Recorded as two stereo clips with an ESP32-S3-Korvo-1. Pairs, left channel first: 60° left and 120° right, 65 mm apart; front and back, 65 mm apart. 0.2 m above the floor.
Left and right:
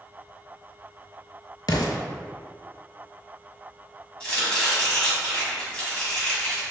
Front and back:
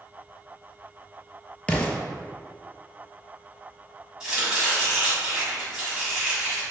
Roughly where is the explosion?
Left.